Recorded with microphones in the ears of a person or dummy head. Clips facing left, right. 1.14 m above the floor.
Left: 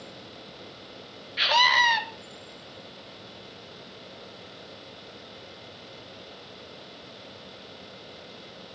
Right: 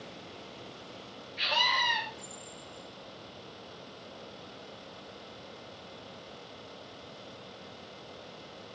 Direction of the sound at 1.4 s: 70° left (ahead or behind).